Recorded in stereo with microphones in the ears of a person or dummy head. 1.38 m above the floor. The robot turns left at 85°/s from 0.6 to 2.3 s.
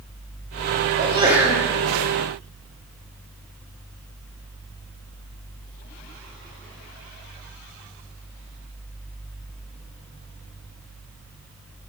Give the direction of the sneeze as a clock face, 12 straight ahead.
5 o'clock.